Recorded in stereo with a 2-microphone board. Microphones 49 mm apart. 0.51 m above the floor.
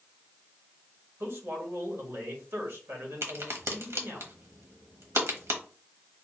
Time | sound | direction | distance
1.2 | a man speaking | 65° right (ahead or behind) | 1.6 m
3.2 | a crack | 70° right (ahead or behind) | 1.2 m